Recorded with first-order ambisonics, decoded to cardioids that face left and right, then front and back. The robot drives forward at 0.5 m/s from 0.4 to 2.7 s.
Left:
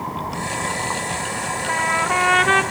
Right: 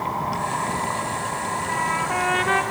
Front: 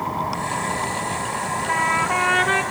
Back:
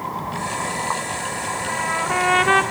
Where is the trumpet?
40° left, 0.6 m; by 2.6 s 135° left, 0.6 m.